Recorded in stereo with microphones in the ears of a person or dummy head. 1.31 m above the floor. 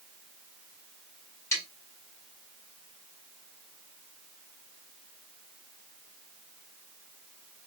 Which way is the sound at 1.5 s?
20° left (ahead or behind).